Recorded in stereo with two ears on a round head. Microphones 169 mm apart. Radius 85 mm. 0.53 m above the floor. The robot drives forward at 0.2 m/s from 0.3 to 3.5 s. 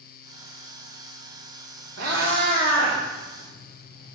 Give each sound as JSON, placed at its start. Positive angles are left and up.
{"t": 2.0, "sound": "a cat meowing", "side_deg": -65, "distance_m": 2.5}